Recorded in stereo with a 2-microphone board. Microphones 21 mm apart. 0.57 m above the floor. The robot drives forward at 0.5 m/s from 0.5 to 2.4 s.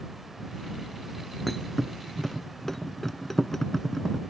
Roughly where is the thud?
Centre.